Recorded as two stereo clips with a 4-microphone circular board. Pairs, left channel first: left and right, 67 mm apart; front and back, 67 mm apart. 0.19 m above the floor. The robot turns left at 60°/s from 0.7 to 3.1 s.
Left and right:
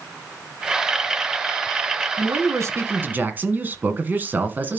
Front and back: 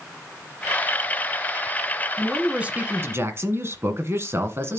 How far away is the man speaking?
About 1.4 m.